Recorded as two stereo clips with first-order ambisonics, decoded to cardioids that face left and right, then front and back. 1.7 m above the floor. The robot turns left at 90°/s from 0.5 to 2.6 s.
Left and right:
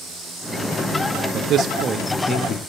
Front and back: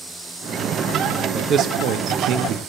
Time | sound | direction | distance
1.3 | a man speaking | 110° right | 0.7 m